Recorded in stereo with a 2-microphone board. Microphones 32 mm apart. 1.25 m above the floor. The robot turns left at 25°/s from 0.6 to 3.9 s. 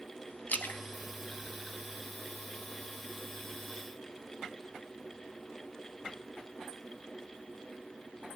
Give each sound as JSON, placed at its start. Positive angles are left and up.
{"t": 0.5, "sound": "a splash", "side_deg": 55, "distance_m": 1.1}